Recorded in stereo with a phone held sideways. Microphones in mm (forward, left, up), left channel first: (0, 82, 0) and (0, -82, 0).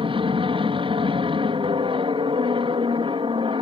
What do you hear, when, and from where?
0.0 s an aircraft: 35° right (ahead or behind)